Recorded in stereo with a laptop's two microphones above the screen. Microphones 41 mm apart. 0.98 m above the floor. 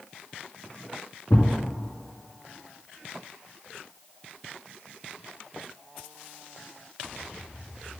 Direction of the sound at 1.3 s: 65° left (ahead or behind).